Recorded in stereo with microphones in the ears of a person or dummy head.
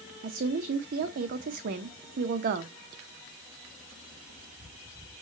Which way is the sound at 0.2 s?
45° right (ahead or behind).